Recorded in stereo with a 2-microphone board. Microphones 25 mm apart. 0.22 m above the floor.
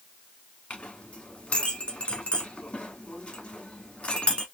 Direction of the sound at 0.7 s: 60° left (ahead or behind).